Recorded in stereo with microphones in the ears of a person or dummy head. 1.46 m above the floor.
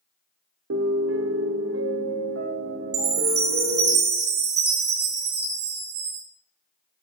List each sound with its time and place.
0.7 s a piano: 85° right, 0.8 m
2.9 s a chime: 40° right (ahead or behind), 0.6 m